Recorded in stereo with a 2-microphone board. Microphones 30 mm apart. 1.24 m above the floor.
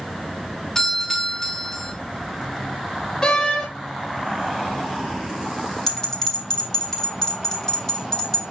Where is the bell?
25° left (ahead or behind), 3.5 m.